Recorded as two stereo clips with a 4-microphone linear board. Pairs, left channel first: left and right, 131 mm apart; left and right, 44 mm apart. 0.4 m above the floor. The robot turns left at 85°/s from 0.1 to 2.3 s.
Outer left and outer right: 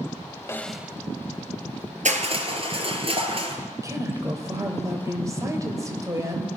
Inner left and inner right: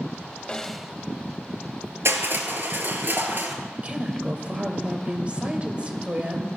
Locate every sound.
0.5 s a snare drum: 20° left, 0.6 m; by 1.0 s 20° right, 0.6 m
2.0 s crushing: 65° right (ahead or behind), 2.5 m; by 3.5 s 45° right (ahead or behind), 2.5 m
3.8 s a woman speaking: 25° right (ahead or behind), 2 m